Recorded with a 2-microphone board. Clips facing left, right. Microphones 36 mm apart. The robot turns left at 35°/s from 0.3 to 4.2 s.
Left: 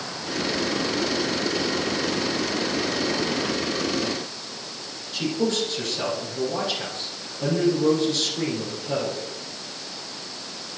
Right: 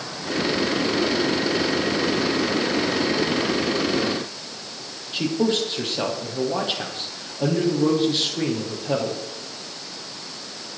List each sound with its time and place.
5.1 s a man speaking: 25° right (ahead or behind), 5.5 m